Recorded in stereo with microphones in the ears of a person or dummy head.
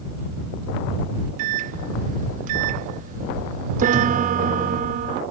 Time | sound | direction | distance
1.4 | a microwave | 40° right (ahead or behind) | ?
3.8 | a piano | 50° right (ahead or behind) | ?